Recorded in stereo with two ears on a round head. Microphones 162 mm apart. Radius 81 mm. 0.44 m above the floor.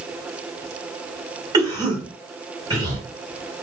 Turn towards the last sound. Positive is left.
turn(degrees=-20)  # may be behind; listen again after turning